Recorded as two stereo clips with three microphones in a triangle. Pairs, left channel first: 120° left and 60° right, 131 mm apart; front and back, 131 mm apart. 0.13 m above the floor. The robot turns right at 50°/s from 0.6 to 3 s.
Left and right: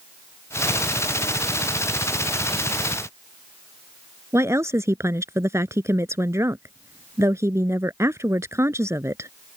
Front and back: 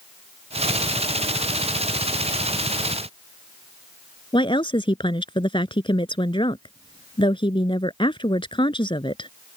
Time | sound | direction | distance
4.3 | a woman speaking | 5° right | ?